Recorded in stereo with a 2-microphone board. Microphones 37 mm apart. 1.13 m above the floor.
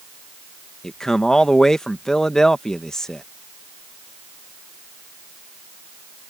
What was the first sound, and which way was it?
A man speaking, 15° left (ahead or behind).